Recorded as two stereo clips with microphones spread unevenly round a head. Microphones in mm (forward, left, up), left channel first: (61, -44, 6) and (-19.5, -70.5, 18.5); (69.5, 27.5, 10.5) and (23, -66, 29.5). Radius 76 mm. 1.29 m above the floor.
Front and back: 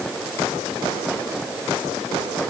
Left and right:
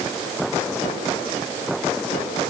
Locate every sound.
Only background noise.